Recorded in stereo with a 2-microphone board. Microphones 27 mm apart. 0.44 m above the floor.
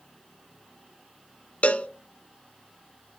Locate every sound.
1.6 s a cowbell: 65° left (ahead or behind), 0.6 m